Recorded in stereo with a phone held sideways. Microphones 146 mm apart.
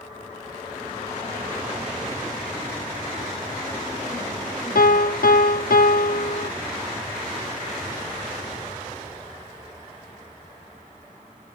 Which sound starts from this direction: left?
A piano, at 4.8 s.